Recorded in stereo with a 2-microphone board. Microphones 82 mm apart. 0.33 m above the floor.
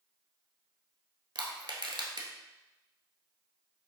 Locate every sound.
1.4 s crushing: 70° right (ahead or behind), 0.9 m